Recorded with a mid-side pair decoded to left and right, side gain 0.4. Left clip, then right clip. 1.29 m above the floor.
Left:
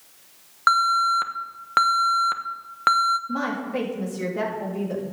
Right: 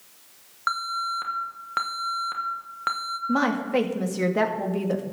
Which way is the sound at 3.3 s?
60° right.